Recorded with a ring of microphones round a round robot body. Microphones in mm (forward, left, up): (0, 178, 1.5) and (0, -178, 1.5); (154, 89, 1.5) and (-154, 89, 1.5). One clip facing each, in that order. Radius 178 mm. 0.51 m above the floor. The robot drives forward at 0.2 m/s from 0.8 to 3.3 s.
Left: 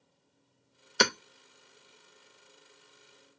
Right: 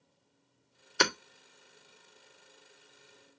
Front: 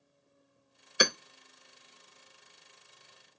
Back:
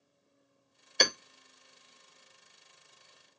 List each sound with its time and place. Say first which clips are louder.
1.0 s hammering: left 2 dB, front 2 dB; 80° left, 0.8 m; by 1.1 s 85° left, 0.8 m